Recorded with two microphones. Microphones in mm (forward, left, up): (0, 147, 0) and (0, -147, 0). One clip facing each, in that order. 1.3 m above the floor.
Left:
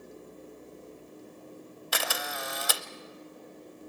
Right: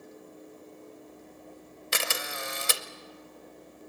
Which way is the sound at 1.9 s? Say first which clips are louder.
Even; 25° right (ahead or behind).